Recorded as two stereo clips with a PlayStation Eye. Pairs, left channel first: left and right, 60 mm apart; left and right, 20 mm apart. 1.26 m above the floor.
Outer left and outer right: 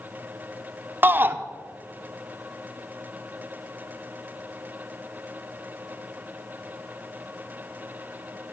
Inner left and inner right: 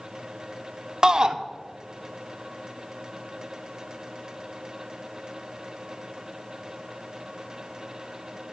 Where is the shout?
35° right (ahead or behind), 0.7 m.